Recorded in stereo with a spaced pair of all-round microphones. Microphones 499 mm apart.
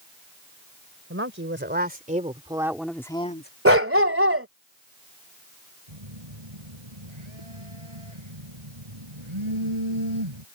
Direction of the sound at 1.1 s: 25° right (ahead or behind).